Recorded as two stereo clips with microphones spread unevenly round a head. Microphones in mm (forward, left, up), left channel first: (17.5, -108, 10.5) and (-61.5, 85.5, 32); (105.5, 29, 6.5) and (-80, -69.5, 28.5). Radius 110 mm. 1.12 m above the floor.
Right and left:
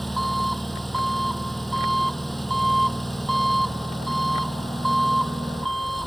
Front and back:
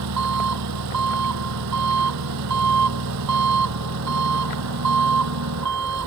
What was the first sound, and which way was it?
An engine running, 155° right.